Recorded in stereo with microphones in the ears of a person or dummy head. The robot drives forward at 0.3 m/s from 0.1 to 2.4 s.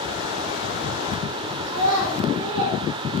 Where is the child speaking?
80° right, 1.0 m; by 2.8 s 70° right (ahead or behind), 1.0 m.